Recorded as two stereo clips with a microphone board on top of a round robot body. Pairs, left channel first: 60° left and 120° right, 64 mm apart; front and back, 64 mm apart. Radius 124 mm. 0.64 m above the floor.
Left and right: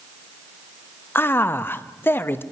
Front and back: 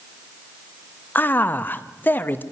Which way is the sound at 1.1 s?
40° left.